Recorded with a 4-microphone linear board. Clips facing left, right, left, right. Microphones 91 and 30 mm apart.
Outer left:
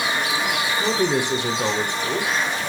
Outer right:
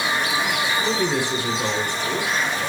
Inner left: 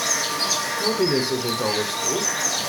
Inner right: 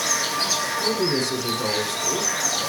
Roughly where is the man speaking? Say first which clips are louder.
Outer left 4 dB, inner left 4 dB; centre.